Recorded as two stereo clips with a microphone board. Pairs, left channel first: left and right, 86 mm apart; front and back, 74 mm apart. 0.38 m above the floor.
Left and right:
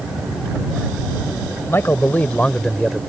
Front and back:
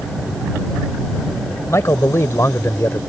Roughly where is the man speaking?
Ahead left.